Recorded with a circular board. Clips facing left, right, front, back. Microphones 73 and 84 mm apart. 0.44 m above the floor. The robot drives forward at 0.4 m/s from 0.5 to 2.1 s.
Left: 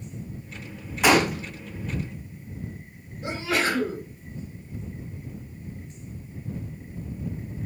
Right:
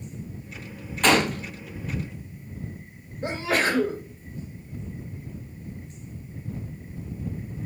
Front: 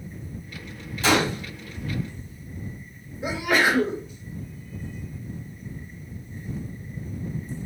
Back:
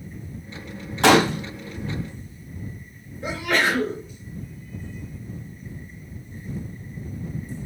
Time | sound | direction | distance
1.0 | a gunshot | 170° left | 0.6 m
3.2 | a sneeze | 75° right | 1.5 m